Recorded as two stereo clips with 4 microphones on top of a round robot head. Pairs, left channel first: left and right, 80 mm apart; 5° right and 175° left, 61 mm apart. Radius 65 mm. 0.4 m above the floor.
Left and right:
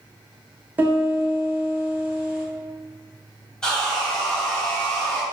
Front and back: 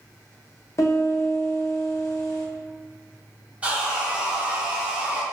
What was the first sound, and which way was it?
A piano, 25° right.